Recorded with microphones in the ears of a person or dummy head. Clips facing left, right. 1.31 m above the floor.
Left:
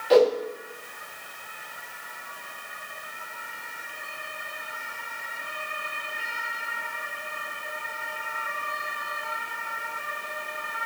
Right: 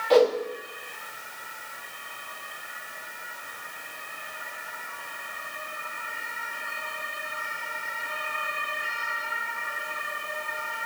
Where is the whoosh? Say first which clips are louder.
Left 1 dB; 20° left (ahead or behind), 1.2 m.